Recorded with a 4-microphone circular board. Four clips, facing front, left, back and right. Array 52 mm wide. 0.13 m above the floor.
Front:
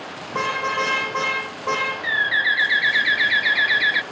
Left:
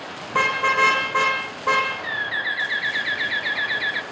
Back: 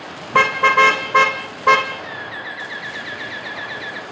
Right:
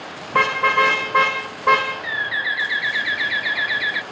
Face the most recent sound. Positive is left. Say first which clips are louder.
# right 2 dB, front 10 dB
turn(degrees=-5)